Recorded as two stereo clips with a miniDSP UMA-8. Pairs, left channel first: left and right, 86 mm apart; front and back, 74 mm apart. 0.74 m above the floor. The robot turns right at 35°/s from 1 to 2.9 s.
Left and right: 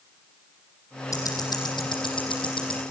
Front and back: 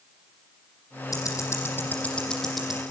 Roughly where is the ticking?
Ahead left.